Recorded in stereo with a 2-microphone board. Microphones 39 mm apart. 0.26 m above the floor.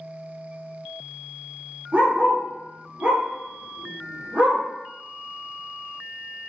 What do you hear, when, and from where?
1.9 s a dog barking: 40° right (ahead or behind), 1.7 m